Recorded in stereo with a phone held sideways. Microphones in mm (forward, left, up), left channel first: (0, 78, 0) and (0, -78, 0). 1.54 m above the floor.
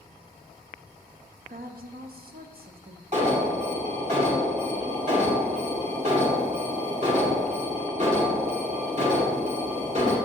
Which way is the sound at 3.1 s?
50° right (ahead or behind).